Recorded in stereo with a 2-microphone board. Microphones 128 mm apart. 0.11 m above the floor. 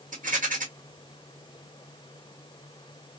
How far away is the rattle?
About 1.6 m.